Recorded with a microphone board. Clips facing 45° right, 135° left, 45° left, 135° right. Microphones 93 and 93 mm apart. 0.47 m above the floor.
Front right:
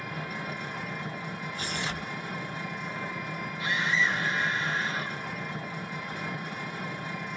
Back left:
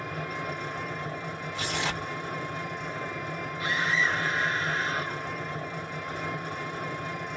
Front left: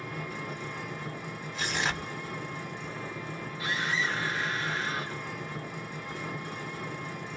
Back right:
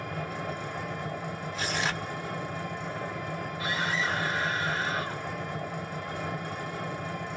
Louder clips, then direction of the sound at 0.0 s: Back left 2 dB, back right 3 dB; 170° right.